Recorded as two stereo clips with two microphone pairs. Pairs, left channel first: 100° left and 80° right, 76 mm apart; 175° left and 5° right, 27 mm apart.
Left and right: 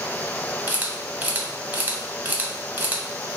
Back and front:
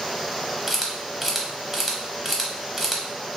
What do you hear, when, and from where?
0.7 s a camera shutter: 85° right, 0.6 m